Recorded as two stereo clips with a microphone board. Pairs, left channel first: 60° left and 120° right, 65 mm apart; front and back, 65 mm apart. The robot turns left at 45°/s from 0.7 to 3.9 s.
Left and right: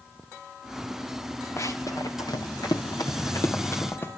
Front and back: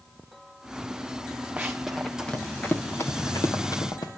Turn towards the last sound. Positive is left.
turn(degrees=5)